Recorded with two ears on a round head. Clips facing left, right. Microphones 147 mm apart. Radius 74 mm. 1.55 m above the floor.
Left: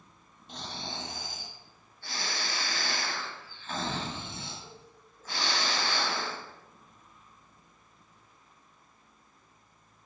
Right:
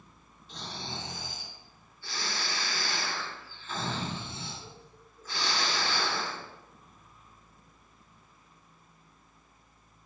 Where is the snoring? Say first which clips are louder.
Even; 50° left (ahead or behind), 2 m.